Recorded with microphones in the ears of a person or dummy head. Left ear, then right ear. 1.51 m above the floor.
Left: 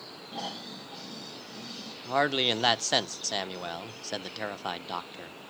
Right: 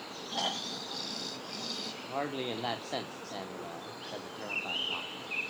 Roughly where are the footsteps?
I don't hear footsteps.